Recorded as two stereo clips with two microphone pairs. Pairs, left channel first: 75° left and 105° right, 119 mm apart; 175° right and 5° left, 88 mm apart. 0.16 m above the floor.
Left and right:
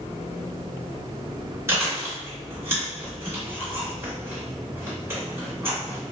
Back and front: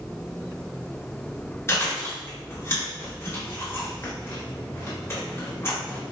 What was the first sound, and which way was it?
Chewing, 155° right.